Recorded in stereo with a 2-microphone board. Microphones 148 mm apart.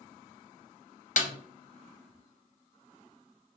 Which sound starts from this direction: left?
A snare drum, at 1.2 s.